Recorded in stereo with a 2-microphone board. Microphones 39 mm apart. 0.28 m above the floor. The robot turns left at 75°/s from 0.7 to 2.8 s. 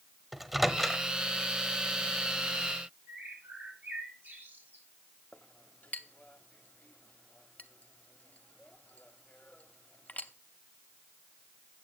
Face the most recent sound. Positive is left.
turn(degrees=40)  # may be behind; listen again after turning